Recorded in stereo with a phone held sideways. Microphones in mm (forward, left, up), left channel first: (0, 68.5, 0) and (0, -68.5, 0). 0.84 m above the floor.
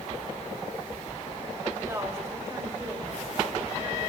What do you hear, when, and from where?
1.8 s a woman speaking: 20° right (ahead or behind), 4 m